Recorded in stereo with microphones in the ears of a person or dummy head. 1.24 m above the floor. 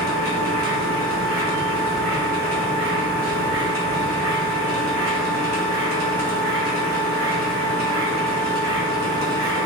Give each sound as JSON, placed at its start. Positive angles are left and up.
{"t": 0.0, "sound": "a machine running", "side_deg": -75, "distance_m": 1.2}